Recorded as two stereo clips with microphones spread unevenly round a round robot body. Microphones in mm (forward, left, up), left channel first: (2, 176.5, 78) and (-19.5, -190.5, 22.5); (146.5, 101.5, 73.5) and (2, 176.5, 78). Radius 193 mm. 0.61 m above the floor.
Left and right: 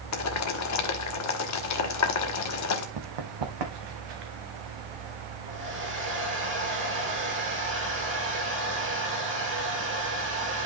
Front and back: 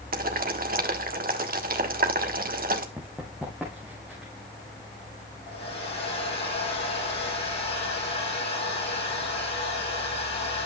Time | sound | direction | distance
0.1 | boiling | 135° left | 1.5 m
3.0 | running footsteps | 120° right | 1.3 m
5.5 | a hair dryer | 35° right | 8 m